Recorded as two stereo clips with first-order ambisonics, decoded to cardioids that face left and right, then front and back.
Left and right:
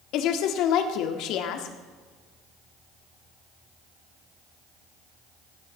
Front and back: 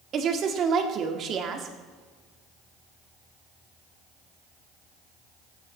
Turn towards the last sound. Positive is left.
turn(degrees=125)